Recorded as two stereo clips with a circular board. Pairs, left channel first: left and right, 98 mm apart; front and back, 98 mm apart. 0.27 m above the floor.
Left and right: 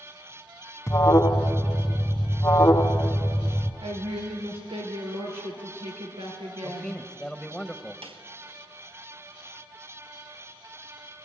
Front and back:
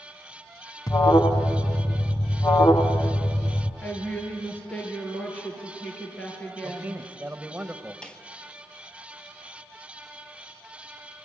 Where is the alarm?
40° left, 1.3 m.